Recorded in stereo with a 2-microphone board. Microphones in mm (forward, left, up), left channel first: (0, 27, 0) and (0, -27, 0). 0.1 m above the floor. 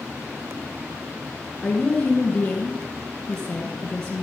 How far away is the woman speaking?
About 1.6 m.